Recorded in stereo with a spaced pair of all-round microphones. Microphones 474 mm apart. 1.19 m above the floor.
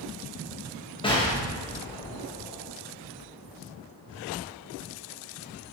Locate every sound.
1.0 s an explosion: 10° left (ahead or behind), 0.5 m